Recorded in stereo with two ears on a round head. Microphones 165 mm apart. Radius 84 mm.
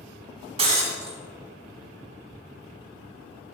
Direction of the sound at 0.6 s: 30° right (ahead or behind).